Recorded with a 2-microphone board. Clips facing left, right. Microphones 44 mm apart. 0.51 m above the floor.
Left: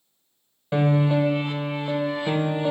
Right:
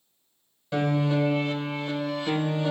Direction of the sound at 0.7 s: 20° left (ahead or behind).